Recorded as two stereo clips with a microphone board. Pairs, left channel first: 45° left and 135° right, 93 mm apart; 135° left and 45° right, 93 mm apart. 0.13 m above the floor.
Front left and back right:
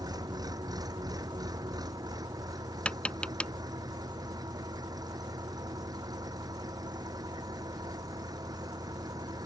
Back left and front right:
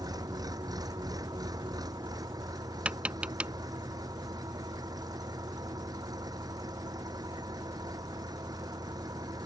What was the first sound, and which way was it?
An engine running, 90° right.